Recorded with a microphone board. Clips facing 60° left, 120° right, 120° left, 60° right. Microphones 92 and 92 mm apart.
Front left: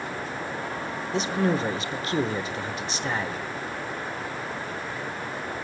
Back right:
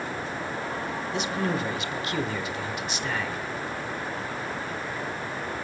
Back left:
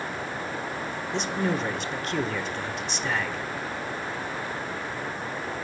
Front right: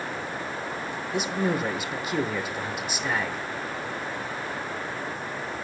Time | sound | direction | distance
1.1 | a man speaking | 20° left | 1.0 m